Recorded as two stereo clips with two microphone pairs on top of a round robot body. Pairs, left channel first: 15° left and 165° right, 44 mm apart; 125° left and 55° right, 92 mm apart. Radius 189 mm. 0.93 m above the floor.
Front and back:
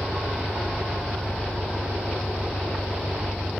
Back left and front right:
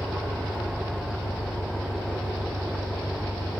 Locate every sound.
0.0 s an engine running: 150° left